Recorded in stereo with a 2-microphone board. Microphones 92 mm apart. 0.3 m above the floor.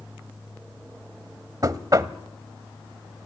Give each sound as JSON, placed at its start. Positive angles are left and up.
{"t": 1.6, "sound": "knocking", "side_deg": -40, "distance_m": 1.1}